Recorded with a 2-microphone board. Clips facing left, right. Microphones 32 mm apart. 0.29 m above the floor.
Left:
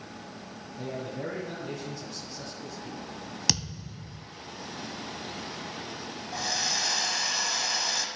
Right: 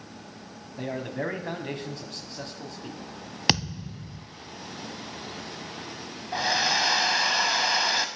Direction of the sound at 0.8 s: 55° right (ahead or behind).